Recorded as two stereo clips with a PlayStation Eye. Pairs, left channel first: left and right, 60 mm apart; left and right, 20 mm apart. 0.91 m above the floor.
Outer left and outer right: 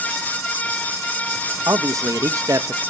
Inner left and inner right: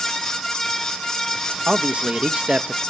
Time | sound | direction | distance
1.7 | a man speaking | 60° right (ahead or behind) | 0.7 m